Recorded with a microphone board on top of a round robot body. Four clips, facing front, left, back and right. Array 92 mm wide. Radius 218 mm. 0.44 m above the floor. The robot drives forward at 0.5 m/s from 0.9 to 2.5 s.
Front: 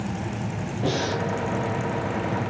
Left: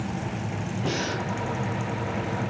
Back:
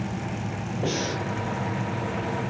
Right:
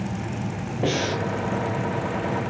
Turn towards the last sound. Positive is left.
turn(degrees=-110)